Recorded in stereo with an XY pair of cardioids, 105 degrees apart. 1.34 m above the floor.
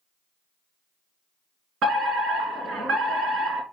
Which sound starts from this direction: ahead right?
A fire alarm, at 1.8 s.